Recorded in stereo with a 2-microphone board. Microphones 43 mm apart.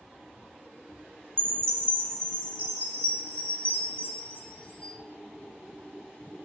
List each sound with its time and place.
1.4 s a chime: 20° left (ahead or behind), 0.5 m